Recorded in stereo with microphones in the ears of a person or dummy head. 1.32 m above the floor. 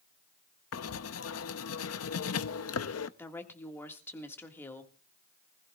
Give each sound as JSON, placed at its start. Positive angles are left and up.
{"t": 0.7, "sound": "writing", "side_deg": 75, "distance_m": 0.7}
{"t": 3.2, "sound": "a woman speaking", "side_deg": 15, "distance_m": 1.8}